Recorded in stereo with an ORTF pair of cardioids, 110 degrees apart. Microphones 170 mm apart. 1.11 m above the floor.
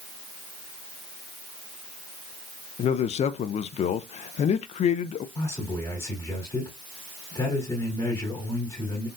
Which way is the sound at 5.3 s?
25° left.